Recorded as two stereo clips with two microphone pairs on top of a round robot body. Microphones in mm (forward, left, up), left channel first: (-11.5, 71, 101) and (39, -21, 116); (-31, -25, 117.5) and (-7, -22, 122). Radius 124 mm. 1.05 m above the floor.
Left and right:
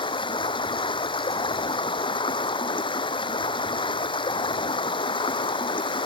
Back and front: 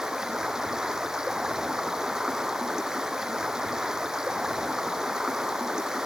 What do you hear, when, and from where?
0.0 s running water: 75° left